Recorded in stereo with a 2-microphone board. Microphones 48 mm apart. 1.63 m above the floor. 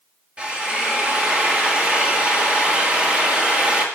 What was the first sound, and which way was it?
A drill, 20° right (ahead or behind).